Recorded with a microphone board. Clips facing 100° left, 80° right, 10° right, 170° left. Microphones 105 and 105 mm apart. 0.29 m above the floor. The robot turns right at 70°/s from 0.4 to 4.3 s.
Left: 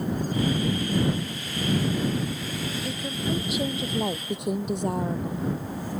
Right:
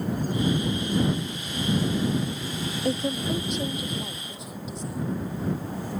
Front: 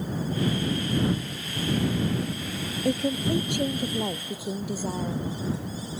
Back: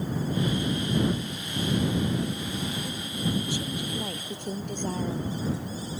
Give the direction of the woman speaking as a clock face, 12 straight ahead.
1 o'clock.